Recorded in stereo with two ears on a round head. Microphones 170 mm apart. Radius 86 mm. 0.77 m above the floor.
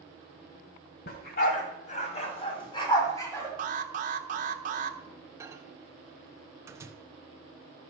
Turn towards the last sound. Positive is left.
turn(degrees=-15)  # may be behind; listen again after turning